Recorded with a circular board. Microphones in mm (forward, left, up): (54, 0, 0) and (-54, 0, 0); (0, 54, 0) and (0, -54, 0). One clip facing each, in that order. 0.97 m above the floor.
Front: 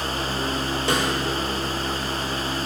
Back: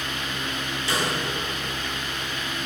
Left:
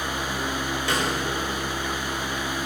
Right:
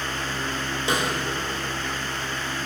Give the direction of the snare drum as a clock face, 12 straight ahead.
1 o'clock.